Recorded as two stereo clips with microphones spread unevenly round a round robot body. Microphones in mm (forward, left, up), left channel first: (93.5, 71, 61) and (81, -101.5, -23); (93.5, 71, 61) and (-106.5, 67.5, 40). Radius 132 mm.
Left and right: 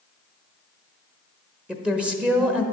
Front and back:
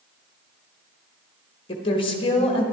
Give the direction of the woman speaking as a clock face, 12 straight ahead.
2 o'clock.